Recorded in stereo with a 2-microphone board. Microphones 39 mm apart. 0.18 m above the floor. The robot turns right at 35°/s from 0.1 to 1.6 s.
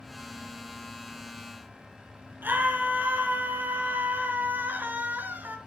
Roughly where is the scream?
Right.